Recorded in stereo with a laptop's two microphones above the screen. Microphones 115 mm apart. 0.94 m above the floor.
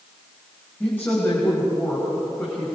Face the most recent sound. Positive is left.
turn(degrees=20)  # may be behind; listen again after turning